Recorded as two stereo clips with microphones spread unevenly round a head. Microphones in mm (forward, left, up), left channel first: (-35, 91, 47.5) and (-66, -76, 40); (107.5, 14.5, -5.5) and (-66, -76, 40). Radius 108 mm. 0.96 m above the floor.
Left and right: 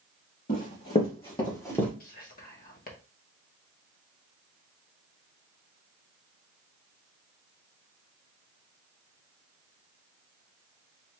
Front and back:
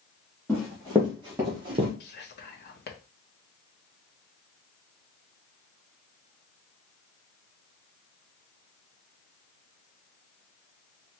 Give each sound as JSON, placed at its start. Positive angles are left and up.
{"t": 0.5, "sound": "running footsteps", "azimuth_deg": 120, "distance_m": 3.0}
{"t": 2.0, "sound": "whispering", "azimuth_deg": 45, "distance_m": 1.1}